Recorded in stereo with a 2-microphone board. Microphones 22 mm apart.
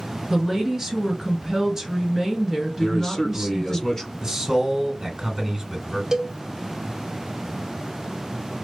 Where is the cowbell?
20° right (ahead or behind), 0.6 m.